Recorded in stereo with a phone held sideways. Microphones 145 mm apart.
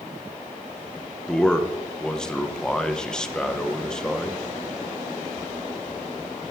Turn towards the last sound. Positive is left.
turn(degrees=5)  # may be behind; listen again after turning